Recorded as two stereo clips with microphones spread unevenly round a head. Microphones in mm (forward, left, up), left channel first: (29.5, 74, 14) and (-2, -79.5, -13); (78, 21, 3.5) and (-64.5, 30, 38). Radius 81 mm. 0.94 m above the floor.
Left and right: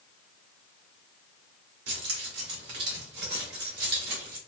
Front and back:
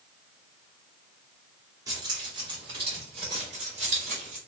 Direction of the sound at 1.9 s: 115° right.